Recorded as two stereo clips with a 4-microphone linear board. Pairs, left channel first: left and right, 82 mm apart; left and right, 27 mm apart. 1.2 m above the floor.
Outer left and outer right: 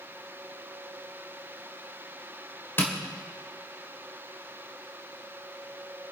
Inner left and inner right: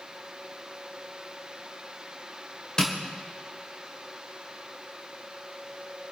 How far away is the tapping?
About 2 m.